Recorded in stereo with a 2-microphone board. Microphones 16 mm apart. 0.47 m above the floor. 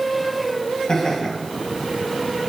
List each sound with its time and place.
0.9 s laughter: 50° left (ahead or behind), 3 m